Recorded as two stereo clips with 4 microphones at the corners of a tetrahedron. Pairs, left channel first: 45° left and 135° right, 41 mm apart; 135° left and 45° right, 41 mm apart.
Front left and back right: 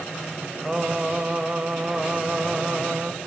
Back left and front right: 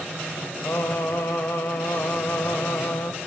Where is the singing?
155° left, 1.0 m.